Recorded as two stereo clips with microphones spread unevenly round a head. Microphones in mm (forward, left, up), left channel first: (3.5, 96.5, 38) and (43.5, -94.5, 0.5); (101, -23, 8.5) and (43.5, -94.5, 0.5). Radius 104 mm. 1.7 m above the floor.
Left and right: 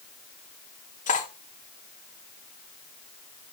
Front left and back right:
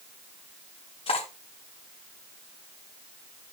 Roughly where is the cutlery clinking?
Ahead left.